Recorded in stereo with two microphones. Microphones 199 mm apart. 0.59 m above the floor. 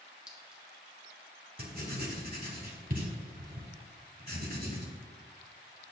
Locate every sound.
0.3 s a clink: 5° right (ahead or behind), 1.1 m
1.6 s writing: 50° right (ahead or behind), 1.3 m